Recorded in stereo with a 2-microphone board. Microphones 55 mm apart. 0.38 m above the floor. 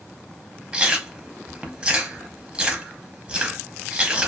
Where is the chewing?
20° right (ahead or behind), 0.6 m.